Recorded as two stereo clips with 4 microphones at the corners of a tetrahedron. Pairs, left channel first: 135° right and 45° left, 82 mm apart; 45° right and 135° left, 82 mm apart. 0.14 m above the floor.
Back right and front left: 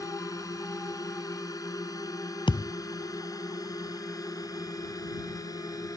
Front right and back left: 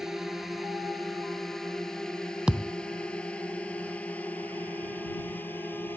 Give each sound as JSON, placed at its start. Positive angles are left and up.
{"t": 0.0, "sound": "a drone", "azimuth_deg": -140}
{"t": 2.5, "sound": "a thud", "azimuth_deg": -145}